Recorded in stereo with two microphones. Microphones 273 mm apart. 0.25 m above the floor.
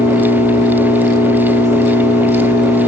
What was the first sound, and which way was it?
An engine running, 10° right (ahead or behind).